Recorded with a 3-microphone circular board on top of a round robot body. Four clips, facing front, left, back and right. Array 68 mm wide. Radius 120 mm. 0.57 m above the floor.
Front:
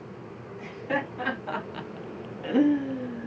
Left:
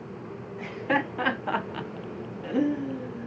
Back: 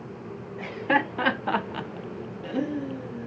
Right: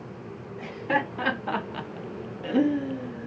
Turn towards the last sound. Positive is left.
turn(degrees=-25)